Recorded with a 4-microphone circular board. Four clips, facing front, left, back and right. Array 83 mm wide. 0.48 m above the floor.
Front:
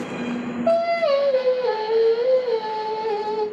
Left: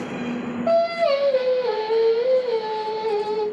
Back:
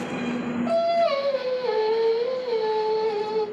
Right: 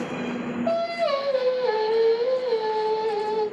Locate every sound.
0.7 s singing: 25° left, 1.6 m